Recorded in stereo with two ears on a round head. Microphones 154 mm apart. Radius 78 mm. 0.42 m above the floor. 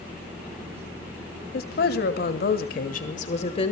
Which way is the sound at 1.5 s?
60° left (ahead or behind).